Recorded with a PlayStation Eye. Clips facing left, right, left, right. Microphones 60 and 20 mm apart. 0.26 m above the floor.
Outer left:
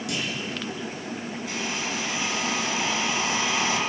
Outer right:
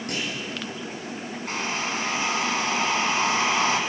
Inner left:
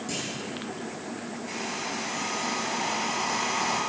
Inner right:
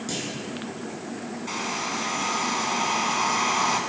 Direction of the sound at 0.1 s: 45° right (ahead or behind).